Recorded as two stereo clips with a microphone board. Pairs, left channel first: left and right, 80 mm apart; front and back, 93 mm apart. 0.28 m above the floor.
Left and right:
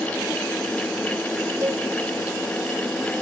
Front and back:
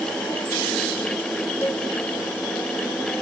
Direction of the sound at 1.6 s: 60° right.